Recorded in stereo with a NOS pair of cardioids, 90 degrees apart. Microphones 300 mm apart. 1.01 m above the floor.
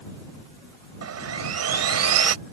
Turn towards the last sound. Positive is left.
turn(degrees=-60)